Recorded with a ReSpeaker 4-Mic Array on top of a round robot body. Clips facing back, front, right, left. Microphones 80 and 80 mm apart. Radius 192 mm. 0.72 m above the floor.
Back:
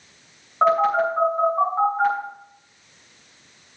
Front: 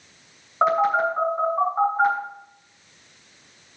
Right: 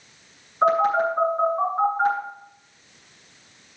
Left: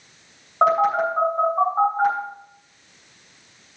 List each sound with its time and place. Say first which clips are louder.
0.6 s a phone buzzing: back 1 dB, left 1 dB; 80° left, 6.5 m